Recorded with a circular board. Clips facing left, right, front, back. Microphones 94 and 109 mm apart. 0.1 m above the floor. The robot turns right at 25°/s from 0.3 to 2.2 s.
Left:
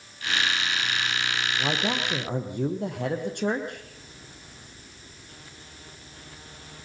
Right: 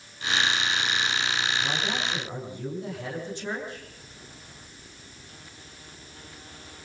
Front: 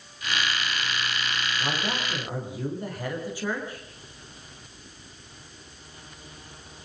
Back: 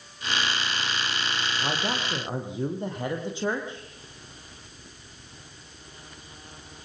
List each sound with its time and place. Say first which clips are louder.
1.6 s a man speaking: left 2 dB, back 2 dB; 100° left, 4.5 m; by 3.9 s 115° left, 4.5 m